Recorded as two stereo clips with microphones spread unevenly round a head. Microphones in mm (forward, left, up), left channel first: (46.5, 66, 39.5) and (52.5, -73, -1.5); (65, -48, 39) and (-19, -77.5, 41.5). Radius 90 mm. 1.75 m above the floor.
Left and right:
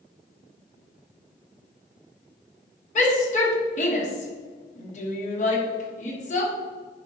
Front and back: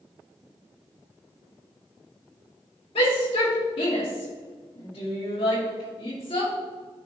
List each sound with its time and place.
3.0 s a shout: 60° left, 2.5 m